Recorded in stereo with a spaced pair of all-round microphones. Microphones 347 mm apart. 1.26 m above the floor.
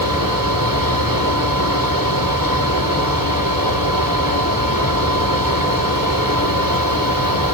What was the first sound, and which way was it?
A fan, 70° right (ahead or behind).